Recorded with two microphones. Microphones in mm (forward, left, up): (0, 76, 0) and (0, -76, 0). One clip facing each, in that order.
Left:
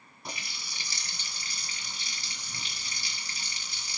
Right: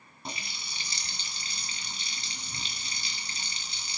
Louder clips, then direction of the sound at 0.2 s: Right 1 dB; 30° right (ahead or behind).